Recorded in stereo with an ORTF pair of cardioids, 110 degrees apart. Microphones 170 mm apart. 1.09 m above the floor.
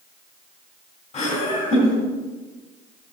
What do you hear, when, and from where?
1.1 s laughter: 40° left, 3.5 m